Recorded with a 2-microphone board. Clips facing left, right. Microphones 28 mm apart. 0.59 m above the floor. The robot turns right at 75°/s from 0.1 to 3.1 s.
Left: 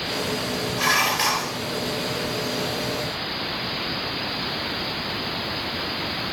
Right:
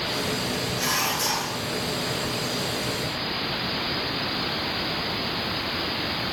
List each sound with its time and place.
0.8 s dishes clattering: 30° left, 1.8 m; by 1.6 s 85° left, 1.8 m